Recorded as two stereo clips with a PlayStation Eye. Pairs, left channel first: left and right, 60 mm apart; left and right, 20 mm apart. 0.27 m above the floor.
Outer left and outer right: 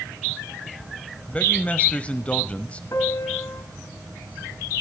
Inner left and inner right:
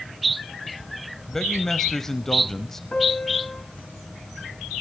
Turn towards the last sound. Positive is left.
turn(degrees=55)  # may be behind; listen again after turning